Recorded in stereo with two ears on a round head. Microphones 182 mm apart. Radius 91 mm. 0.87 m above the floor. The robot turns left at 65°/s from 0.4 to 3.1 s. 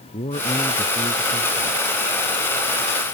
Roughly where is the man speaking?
Ahead left.